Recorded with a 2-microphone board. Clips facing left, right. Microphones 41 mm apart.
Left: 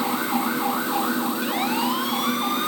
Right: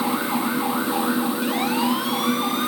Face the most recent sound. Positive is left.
No sound to turn to.